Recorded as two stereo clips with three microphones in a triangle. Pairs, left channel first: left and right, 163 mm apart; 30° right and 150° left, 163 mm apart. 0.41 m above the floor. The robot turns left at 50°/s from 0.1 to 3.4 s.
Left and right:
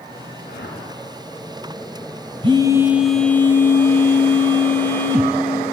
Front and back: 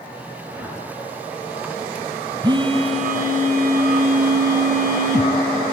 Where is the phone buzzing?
145° right, 1.9 m; by 5.3 s 165° left, 1.9 m.